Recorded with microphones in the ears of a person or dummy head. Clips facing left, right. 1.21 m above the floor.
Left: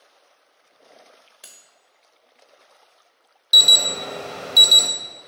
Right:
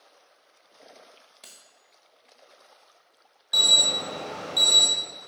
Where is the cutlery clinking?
10° left (ahead or behind), 0.6 m.